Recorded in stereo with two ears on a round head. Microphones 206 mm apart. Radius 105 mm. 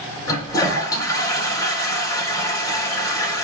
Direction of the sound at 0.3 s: 20° left (ahead or behind).